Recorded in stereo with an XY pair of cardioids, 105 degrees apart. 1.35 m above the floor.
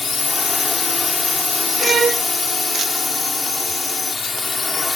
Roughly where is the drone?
Ahead left.